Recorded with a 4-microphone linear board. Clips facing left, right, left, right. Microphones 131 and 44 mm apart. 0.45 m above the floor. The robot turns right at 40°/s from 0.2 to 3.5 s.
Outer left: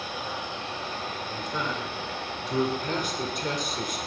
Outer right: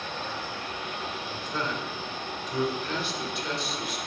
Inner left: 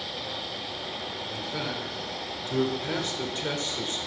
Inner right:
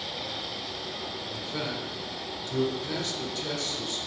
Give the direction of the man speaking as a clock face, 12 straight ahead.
12 o'clock.